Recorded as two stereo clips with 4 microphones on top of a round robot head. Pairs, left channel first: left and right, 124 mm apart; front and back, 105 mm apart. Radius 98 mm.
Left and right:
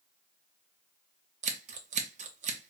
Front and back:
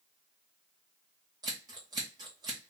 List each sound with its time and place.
1.4 s scissors: 115° right, 0.7 m